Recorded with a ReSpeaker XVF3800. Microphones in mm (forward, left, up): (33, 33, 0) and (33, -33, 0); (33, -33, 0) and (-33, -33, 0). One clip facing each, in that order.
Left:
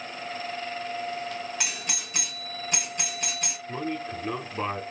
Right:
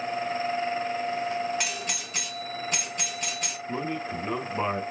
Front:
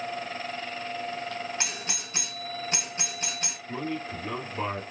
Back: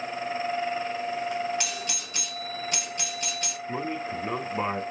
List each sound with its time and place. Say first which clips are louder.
1.6 s a doorbell: right 2 dB, back 2 dB; 5° left, 1.8 m
3.7 s a man speaking: right 1 dB, back 1 dB; 155° right, 1.1 m